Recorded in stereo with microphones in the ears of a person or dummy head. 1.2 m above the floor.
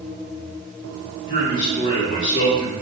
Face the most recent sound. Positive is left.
turn(degrees=50)  # may be behind; listen again after turning